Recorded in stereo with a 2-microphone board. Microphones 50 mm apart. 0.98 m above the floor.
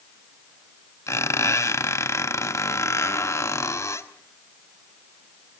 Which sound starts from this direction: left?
A squeak, at 1.1 s.